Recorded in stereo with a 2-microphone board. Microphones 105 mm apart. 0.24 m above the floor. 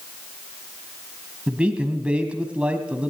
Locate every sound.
1.5 s a man speaking: 10° right (ahead or behind), 1.6 m